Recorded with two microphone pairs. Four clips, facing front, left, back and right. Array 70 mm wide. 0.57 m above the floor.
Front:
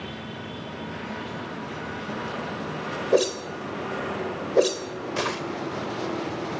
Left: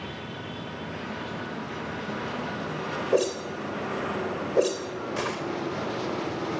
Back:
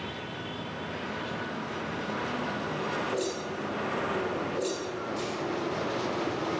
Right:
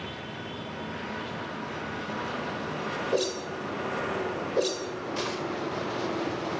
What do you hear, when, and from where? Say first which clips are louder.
3.1 s a whoosh: left 6 dB, front 9 dB; 20° left, 2 m